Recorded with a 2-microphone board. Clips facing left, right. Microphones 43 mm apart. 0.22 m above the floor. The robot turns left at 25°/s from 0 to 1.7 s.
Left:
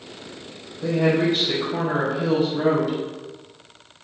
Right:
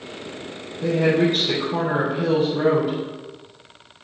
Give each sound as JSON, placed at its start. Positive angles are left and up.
{"t": 0.8, "sound": "a woman speaking", "side_deg": -50, "distance_m": 1.9}